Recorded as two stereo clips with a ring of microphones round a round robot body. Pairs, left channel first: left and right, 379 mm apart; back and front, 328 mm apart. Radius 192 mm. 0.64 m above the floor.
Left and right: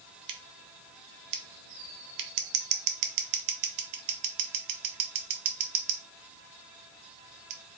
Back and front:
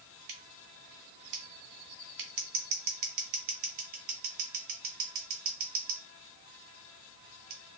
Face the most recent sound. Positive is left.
turn(degrees=-50)